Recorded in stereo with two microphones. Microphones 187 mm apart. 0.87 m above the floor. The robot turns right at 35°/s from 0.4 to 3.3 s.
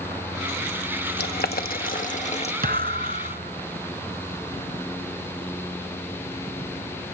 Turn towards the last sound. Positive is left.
turn(degrees=-45)  # may be behind; listen again after turning